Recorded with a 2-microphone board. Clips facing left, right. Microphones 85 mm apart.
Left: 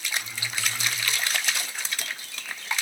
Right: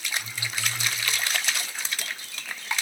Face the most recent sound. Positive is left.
turn(degrees=25)  # may be behind; listen again after turning